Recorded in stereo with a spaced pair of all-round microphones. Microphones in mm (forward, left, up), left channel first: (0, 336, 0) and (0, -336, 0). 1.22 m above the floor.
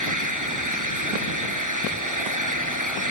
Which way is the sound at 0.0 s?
30° right (ahead or behind).